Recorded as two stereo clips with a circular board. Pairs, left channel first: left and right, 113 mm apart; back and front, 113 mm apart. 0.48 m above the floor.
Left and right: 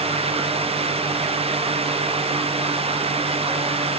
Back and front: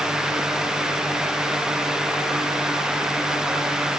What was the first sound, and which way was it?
Only background noise.